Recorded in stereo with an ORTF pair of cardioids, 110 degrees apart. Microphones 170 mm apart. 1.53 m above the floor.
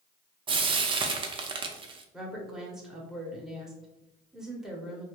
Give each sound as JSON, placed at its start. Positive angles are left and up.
{"t": 0.5, "sound": "frying", "azimuth_deg": -30, "distance_m": 0.5}
{"t": 2.1, "sound": "a woman speaking", "azimuth_deg": -5, "distance_m": 1.0}